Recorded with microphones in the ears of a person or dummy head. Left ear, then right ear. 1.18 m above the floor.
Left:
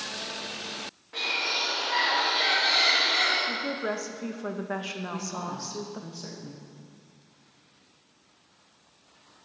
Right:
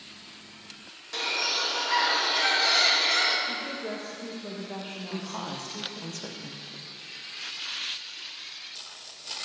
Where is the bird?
70° right (ahead or behind), 2.0 m.